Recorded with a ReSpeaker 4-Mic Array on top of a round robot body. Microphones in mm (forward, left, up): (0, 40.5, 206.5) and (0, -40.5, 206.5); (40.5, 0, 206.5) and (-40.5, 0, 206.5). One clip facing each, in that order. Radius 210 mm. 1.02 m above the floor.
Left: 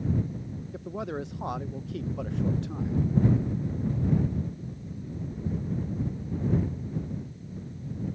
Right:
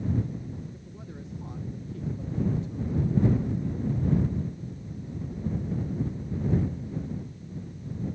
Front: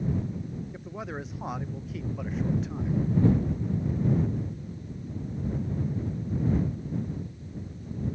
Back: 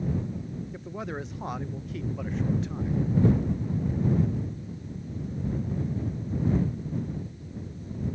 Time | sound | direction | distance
0.7 | a man speaking | 90° left | ?